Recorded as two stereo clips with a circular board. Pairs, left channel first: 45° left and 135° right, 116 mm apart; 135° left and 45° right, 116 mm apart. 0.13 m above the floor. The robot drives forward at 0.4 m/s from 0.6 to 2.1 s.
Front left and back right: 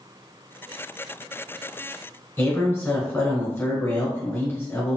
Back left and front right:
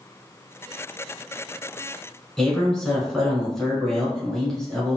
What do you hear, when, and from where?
2.4 s a man speaking: 55° left, 1.1 m